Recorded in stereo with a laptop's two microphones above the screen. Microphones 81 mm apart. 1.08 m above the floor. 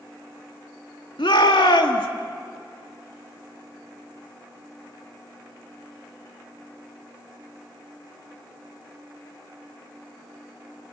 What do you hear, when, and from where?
1.2 s a shout: 75° left (ahead or behind), 2.5 m